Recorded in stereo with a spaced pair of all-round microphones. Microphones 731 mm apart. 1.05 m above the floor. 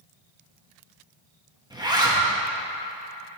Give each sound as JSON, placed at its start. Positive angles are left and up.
{"t": 1.7, "sound": "a zipper", "side_deg": -5, "distance_m": 1.1}